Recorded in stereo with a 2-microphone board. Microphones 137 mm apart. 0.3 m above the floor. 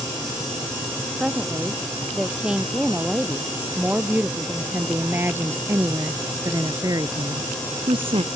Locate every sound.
1.2 s a woman speaking: 5° right (ahead or behind); by 8.3 s 45° right (ahead or behind)